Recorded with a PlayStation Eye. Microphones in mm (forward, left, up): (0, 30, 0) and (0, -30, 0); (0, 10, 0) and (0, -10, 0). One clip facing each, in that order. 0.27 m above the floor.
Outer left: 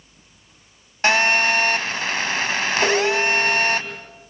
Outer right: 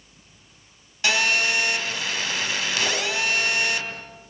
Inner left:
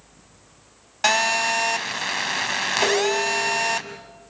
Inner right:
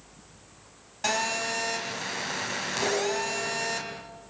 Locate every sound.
1.0 s a phone buzzing: 45° left (ahead or behind), 2 m
2.8 s dishes clattering: 80° left, 4 m